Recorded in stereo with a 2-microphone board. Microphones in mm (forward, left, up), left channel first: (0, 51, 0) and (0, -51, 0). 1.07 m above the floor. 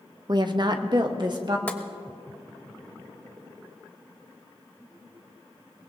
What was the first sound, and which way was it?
A woman speaking, 45° right (ahead or behind).